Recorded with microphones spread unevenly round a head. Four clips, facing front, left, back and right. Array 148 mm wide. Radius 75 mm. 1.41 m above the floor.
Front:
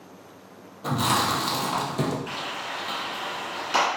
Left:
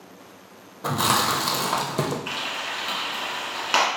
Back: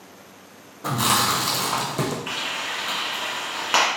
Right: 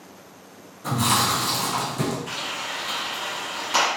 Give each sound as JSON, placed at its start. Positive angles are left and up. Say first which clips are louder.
{"t": 0.8, "sound": "chewing", "louder": "even, back 1 dB", "azimuth_deg": 115, "distance_m": 0.6}
{"t": 2.3, "sound": "frying", "louder": "left 1 dB, back 2 dB", "azimuth_deg": 145, "distance_m": 1.5}